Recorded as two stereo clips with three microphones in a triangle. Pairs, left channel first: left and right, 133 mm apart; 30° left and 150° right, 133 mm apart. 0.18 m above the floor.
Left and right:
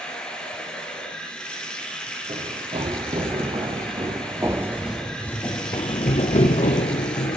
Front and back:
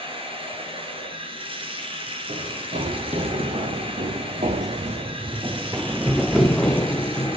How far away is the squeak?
No squeak in this recording.